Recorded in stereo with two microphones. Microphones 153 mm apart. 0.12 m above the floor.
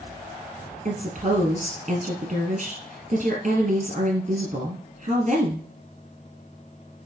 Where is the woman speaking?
55° right (ahead or behind), 2.5 m.